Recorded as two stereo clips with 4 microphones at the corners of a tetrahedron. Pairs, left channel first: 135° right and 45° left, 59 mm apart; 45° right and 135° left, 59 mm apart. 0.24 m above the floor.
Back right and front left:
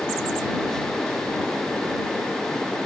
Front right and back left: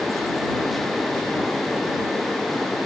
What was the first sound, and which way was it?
Only background noise.